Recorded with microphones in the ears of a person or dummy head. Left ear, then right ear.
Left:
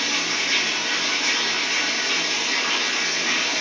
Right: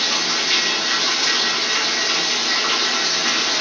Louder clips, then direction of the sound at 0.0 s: Right 3 dB; 65° right (ahead or behind).